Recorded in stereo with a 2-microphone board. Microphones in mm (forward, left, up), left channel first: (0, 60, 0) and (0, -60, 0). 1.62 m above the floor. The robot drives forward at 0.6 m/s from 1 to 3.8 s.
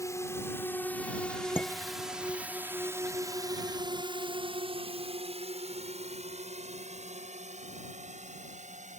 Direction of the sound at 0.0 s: 25° left (ahead or behind).